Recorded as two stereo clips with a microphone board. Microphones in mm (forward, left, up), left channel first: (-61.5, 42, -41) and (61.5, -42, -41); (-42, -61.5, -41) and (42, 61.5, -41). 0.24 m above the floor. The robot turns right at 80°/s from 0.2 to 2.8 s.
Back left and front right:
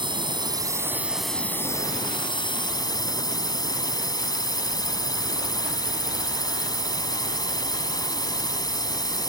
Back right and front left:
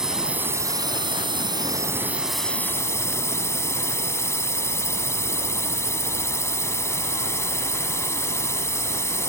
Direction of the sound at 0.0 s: 25° right.